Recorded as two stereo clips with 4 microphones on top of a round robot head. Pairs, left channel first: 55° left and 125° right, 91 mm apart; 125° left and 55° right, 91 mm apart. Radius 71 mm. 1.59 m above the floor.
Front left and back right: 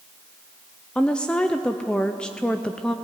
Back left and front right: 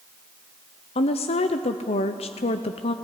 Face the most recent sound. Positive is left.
turn(degrees=135)